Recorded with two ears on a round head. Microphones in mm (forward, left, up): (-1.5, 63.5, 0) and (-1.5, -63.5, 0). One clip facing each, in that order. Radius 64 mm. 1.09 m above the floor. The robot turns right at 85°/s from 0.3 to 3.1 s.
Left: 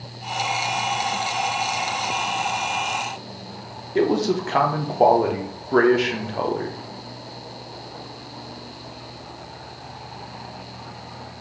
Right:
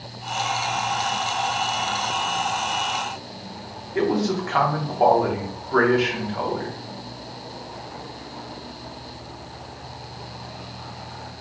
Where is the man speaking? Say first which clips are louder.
Left 2 dB; 35° left (ahead or behind), 0.6 m.